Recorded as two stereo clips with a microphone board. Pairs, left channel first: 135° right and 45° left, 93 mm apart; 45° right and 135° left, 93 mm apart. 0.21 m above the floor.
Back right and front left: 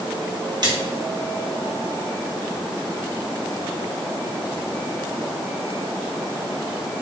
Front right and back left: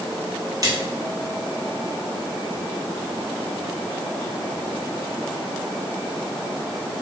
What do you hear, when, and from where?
0.6 s a splash: 85° left, 1.6 m